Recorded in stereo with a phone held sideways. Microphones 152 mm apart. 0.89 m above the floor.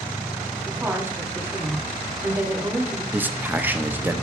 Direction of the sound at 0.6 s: 15° right (ahead or behind).